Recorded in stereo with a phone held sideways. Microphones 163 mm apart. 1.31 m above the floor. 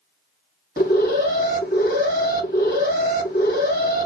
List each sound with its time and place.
0.8 s an alarm: 70° left (ahead or behind), 1.5 m